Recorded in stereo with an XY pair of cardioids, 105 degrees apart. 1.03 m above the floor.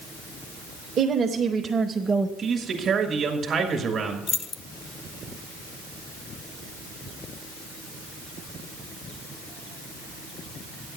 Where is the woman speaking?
60° right, 1.0 m; by 2.3 s 15° right, 0.7 m.